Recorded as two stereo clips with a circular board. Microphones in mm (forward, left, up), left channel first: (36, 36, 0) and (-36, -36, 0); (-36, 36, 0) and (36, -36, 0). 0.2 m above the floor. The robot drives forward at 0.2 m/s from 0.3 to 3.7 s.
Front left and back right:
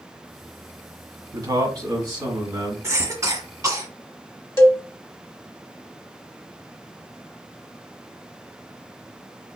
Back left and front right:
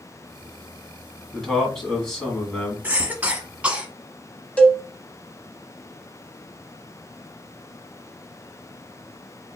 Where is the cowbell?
70° left, 0.8 m.